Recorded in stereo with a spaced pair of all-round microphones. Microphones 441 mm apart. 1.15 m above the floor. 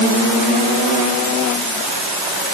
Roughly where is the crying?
No crying in this recording.